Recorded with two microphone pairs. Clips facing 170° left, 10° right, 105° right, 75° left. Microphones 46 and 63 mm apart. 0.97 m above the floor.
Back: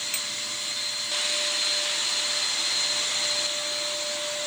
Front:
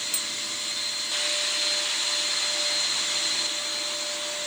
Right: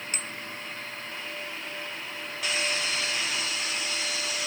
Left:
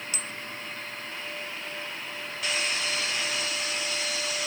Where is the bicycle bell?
145° right.